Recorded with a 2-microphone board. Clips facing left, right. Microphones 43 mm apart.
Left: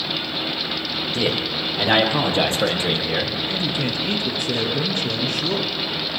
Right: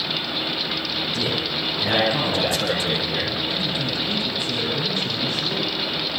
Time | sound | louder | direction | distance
1.1 | a man speaking | left 5 dB | 55° left (ahead or behind) | 7 m
3.5 | a man speaking | left 1 dB | 75° left (ahead or behind) | 5 m